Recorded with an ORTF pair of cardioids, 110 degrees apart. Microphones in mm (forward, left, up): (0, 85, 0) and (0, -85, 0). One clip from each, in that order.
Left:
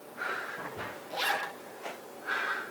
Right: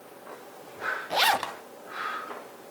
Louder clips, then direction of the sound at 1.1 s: Right 7 dB; 55° right.